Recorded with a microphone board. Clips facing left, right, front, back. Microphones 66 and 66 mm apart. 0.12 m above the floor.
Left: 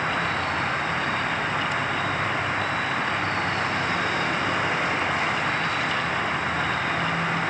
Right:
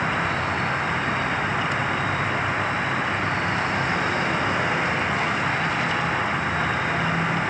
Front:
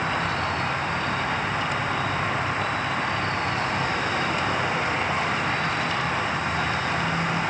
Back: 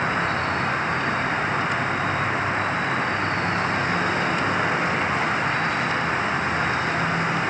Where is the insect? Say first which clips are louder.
Right 1 dB, back 2 dB; 160° right, 1.1 m.